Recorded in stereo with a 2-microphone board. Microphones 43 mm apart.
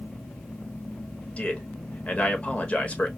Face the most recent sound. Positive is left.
turn(degrees=30)  # may be behind; listen again after turning